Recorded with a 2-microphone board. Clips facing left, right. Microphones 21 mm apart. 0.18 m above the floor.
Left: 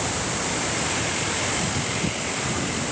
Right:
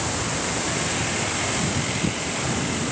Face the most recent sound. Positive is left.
No sound to turn to.